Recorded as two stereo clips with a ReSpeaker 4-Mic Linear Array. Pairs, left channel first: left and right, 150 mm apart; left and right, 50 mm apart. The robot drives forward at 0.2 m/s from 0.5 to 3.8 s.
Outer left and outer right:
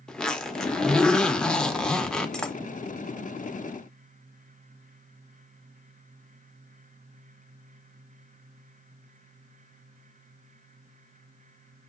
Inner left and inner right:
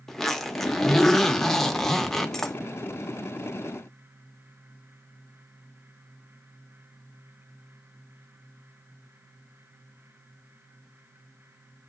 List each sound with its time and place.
0.1 s a zipper: 5° left (ahead or behind), 0.6 m